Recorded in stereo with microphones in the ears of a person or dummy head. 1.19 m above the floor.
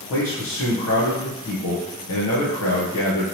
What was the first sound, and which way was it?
A man speaking, 60° left (ahead or behind).